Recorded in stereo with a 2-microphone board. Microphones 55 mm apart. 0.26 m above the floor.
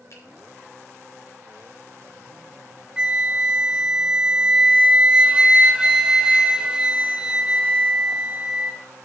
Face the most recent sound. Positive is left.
turn(degrees=-15)  # may be behind; listen again after turning